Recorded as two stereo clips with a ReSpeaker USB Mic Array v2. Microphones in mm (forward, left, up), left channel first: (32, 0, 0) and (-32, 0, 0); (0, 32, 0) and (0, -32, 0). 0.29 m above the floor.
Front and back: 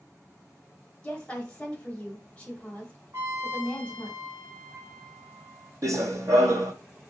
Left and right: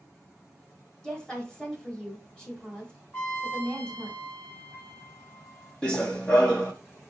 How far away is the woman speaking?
About 1.0 m.